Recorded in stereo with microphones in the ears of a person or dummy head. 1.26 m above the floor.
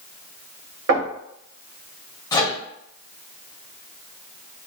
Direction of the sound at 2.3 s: 20° left (ahead or behind).